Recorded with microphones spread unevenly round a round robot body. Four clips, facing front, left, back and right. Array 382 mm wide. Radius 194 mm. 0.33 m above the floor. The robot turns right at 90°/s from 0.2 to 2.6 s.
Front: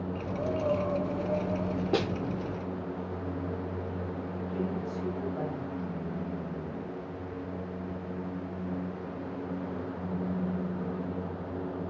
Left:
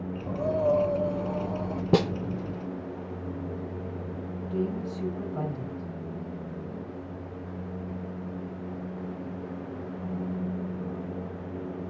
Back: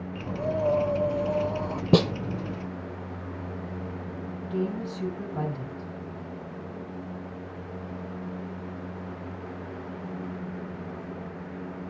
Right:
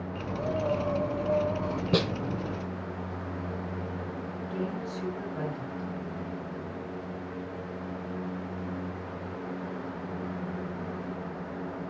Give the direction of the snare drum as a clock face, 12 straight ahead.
6 o'clock.